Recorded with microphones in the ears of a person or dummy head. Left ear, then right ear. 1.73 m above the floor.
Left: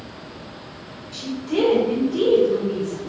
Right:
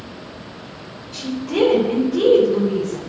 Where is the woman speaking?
5° left (ahead or behind), 6.5 m.